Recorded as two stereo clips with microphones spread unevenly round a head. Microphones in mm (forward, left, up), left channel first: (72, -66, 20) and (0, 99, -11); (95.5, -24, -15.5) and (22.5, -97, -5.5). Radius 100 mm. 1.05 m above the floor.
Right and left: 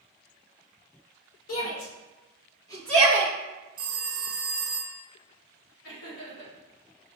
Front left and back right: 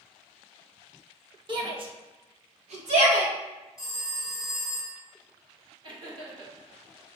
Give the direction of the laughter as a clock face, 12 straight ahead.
3 o'clock.